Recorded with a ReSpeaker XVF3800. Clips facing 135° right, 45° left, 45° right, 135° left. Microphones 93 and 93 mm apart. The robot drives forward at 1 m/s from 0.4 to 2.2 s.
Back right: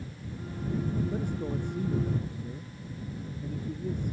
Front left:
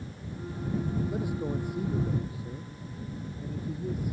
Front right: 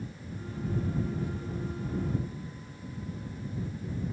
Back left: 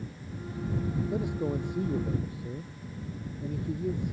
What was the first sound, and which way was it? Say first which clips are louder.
A man speaking: front left 1 dB, back left 5 dB; 125° left.